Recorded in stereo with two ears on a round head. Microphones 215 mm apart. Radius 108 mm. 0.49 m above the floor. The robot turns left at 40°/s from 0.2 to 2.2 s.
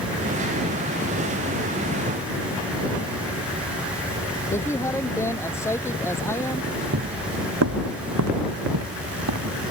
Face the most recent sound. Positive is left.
turn(degrees=-80)